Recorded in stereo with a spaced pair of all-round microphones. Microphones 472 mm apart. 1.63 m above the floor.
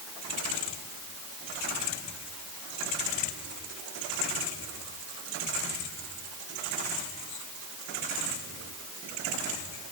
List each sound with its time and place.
Only background noise.